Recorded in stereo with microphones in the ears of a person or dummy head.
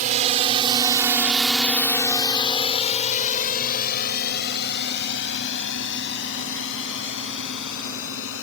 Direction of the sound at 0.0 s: 40° right (ahead or behind).